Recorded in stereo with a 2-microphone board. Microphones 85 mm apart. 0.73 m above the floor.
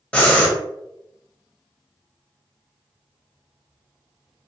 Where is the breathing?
15° left (ahead or behind), 0.8 m.